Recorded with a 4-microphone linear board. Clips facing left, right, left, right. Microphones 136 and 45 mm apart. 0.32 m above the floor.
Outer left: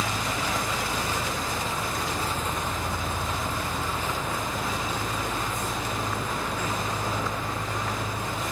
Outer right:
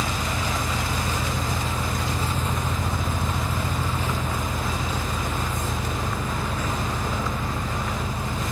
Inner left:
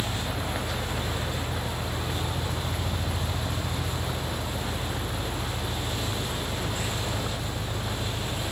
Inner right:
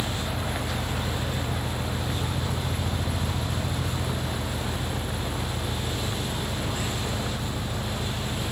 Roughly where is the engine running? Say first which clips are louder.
Outer right 1 dB, inner right 1 dB; right.